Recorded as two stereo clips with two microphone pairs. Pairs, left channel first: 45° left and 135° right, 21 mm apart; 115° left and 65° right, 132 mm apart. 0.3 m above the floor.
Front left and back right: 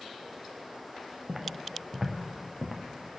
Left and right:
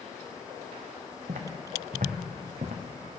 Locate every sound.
1.3 s footsteps: 75° right, 1.7 m; by 3.2 s 50° right, 3 m